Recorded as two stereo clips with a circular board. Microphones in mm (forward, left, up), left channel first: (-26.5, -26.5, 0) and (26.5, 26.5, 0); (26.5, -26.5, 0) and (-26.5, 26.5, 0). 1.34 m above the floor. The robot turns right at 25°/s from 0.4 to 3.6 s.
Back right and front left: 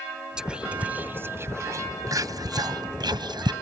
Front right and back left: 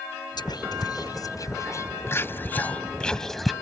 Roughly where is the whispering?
Ahead right.